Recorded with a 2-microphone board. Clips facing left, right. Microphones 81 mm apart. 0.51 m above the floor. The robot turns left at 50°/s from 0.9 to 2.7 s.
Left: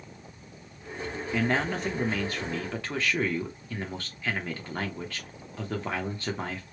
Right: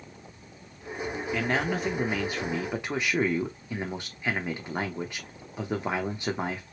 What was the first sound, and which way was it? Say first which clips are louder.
A man speaking: left 1 dB; 5° left (ahead or behind).